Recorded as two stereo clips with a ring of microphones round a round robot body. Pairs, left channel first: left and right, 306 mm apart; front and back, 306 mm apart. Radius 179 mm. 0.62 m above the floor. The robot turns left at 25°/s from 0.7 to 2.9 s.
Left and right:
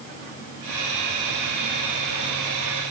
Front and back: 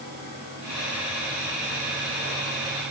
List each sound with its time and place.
Only background noise.